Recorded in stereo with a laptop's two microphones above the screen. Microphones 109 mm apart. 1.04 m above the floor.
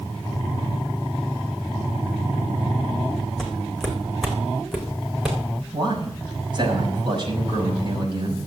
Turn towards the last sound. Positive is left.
turn(degrees=-45)  # may be behind; listen again after turning